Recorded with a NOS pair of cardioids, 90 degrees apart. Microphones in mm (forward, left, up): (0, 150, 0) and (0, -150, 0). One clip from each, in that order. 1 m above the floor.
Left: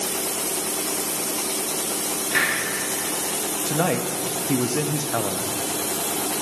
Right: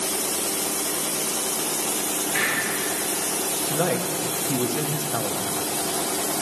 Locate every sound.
2.3 s a hiss: 65° left, 3 m
3.7 s a man speaking: 20° left, 0.8 m